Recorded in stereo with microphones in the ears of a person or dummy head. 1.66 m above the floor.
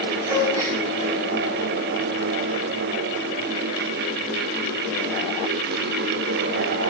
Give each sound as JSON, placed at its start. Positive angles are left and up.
{"t": 0.3, "sound": "a gasp", "side_deg": -20, "distance_m": 6.5}